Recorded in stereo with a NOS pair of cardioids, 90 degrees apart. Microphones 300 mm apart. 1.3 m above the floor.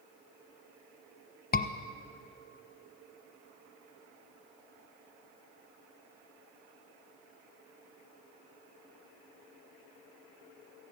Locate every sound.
1.5 s a scream: 30° left, 1.0 m